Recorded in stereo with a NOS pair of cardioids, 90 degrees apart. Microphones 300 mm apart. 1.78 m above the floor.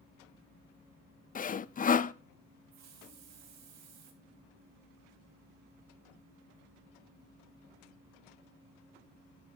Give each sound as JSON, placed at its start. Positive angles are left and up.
{"t": 1.4, "sound": "sawing", "azimuth_deg": 30, "distance_m": 0.6}
{"t": 2.7, "sound": "a hiss", "azimuth_deg": -65, "distance_m": 2.5}